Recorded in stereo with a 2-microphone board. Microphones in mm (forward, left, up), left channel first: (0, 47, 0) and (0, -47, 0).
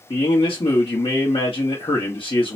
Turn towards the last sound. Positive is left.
turn(degrees=65)  # may be behind; listen again after turning